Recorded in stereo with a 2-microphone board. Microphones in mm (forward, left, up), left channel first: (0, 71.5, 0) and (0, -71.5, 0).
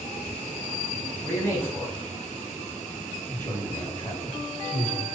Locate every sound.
1.2 s a man speaking: 15° left (ahead or behind), 1.0 m